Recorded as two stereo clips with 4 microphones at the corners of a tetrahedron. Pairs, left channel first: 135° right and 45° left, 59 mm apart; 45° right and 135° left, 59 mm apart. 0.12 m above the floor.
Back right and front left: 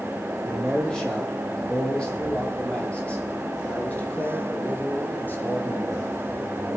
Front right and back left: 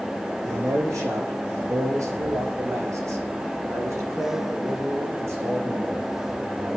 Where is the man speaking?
145° left, 5.5 m; by 6.8 s 175° left, 7 m.